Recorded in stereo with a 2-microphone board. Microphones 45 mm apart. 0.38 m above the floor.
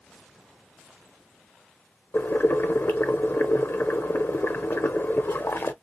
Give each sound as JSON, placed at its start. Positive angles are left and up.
{"t": 2.1, "sound": "boiling", "side_deg": 55, "distance_m": 0.5}